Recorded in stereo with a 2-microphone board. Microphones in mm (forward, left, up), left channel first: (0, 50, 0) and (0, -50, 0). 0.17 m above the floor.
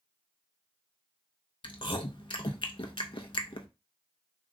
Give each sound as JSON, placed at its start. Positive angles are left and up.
{"t": 1.6, "sound": "chewing", "side_deg": 55, "distance_m": 0.6}